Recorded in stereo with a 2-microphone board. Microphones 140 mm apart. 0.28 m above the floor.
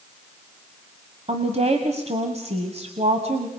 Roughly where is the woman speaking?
Right.